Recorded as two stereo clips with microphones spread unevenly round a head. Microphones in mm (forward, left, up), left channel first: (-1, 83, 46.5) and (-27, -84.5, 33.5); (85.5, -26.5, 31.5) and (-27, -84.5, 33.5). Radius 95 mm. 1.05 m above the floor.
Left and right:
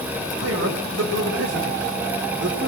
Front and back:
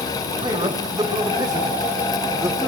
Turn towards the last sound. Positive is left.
turn(degrees=-80)